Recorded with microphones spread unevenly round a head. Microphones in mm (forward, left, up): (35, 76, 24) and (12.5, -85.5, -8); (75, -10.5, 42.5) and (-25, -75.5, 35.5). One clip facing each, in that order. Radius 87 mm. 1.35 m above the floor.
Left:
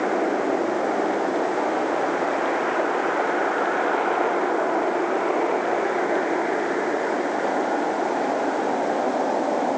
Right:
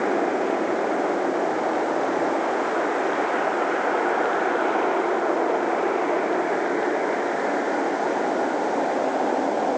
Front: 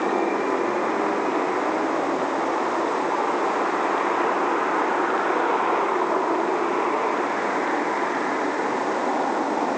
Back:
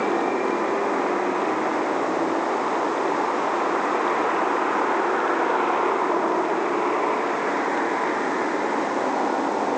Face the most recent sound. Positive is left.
No sound to turn to.